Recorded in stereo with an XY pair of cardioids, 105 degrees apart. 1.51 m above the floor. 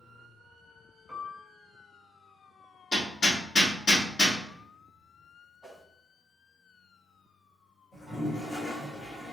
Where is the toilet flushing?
40° left, 1.7 m.